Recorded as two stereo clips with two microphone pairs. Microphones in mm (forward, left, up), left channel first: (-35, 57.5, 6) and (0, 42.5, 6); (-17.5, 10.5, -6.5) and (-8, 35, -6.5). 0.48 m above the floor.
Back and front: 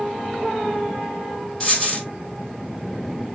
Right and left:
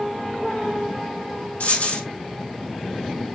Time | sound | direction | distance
1.6 | a dropped coin | 130° right | 2 m